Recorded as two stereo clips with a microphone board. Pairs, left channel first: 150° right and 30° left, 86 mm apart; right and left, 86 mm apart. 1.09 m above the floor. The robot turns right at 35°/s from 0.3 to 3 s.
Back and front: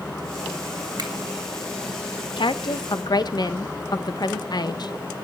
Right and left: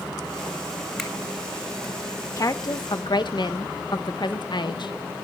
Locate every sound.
1.0 s a finger snap: straight ahead, 2.5 m; by 1.1 s 5° left, 2.5 m
2.4 s a woman speaking: 140° right, 0.8 m; by 4.9 s 115° right, 0.8 m